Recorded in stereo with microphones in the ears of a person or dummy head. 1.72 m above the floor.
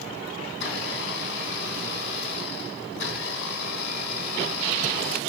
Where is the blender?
65° left (ahead or behind), 3.5 m.